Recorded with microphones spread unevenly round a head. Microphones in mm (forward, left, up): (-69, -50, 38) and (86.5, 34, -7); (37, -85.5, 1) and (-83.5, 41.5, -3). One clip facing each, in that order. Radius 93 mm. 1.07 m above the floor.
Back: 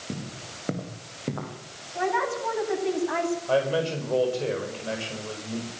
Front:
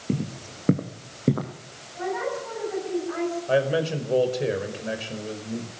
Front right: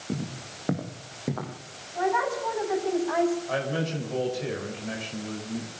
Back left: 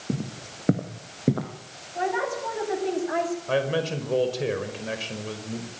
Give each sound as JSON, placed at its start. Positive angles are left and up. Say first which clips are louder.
{"t": 0.1, "sound": "footsteps", "louder": "front 8 dB, back left 2 dB", "azimuth_deg": 65, "distance_m": 3.5}
{"t": 1.9, "sound": "a woman speaking", "louder": "back 1 dB, front right 1 dB", "azimuth_deg": -170, "distance_m": 9.5}
{"t": 3.5, "sound": "a man speaking", "louder": "front 2 dB, back left 4 dB", "azimuth_deg": 100, "distance_m": 5.0}